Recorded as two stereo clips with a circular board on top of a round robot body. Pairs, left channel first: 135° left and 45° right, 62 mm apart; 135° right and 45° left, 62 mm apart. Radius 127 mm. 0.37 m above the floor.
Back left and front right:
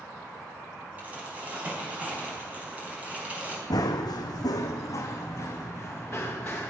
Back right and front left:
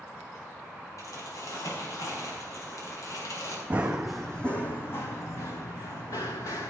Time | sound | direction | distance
1.0 | crumpling | 110° right | 4 m
3.7 | running footsteps | 115° left | 1.0 m